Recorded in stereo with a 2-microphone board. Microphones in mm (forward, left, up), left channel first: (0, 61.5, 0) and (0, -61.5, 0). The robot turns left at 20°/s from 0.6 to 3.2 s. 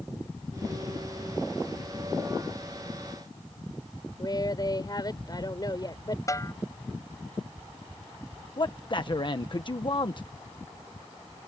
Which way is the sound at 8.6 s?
45° left (ahead or behind).